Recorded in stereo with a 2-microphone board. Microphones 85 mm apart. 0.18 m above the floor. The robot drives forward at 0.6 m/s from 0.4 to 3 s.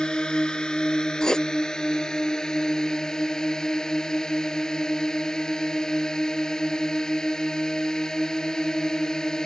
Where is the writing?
10° left (ahead or behind); by 1.5 s 5° left (ahead or behind).